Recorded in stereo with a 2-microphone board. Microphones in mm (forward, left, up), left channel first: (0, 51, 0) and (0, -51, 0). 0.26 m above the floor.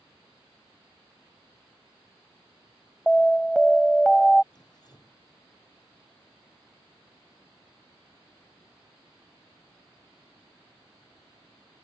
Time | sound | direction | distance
3.1 | an alarm | 5° left (ahead or behind) | ?
4.5 | dripping | 45° left (ahead or behind) | ?